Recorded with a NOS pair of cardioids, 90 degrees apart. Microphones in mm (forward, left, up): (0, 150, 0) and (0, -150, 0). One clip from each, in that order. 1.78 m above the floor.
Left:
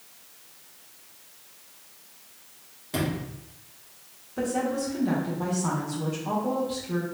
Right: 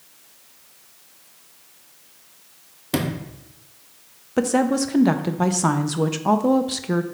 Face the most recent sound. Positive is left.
turn(degrees=-60)